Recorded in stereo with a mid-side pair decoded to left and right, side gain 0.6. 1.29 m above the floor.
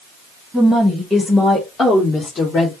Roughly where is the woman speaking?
Ahead.